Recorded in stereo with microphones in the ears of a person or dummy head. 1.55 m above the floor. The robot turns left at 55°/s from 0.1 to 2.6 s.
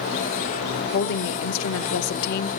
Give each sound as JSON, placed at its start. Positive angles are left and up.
{"t": 0.9, "sound": "a woman speaking", "azimuth_deg": 135, "distance_m": 0.8}